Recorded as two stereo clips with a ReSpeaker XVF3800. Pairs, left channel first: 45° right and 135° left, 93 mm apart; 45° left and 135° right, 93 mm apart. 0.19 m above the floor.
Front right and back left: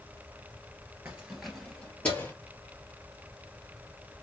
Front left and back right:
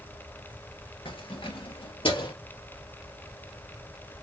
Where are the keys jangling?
60° left, 2 m; by 2.3 s 25° left, 3 m.